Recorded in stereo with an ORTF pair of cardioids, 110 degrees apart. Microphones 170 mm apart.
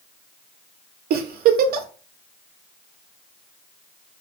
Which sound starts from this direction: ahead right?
A giggle, at 1.1 s.